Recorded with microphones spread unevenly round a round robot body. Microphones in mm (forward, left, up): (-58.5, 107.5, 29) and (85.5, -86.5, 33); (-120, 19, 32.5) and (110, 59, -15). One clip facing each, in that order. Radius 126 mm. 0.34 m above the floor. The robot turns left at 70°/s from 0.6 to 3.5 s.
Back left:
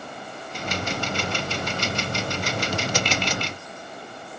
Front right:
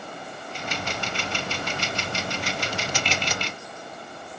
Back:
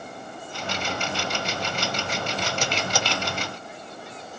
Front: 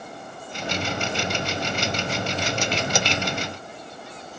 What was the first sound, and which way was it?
Only background noise.